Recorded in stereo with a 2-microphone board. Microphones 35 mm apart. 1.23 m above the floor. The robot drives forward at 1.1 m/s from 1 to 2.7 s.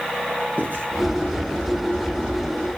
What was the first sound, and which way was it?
Writing, 55° right (ahead or behind).